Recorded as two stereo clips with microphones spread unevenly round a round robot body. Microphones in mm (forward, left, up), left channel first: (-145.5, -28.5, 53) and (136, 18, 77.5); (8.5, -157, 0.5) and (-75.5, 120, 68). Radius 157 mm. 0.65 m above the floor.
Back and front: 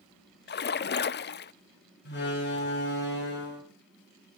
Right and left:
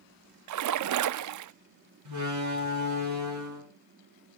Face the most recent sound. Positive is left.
turn(degrees=135)